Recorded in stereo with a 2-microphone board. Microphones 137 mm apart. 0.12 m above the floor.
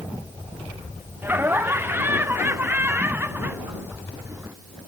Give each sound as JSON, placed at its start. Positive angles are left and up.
{"t": 1.2, "sound": "laughter", "side_deg": -15}